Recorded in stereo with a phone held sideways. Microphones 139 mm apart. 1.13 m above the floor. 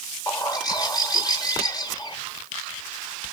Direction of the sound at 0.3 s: 25° left (ahead or behind).